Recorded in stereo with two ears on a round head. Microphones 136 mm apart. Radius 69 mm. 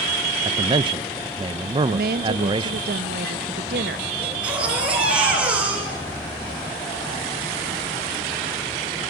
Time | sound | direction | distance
0.5 | a man speaking | 30° right (ahead or behind) | 0.7 m
1.9 | a woman speaking | 70° right (ahead or behind) | 1.0 m
4.2 | a baby crying | 10° right (ahead or behind) | 6.5 m